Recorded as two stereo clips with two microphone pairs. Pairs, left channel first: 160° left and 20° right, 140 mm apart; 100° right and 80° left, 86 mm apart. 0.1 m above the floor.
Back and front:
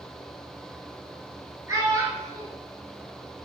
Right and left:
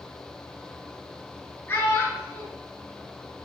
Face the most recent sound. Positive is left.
turn(degrees=-70)